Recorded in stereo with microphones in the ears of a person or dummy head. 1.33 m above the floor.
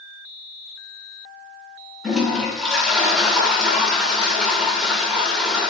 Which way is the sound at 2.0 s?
Centre (ahead or behind).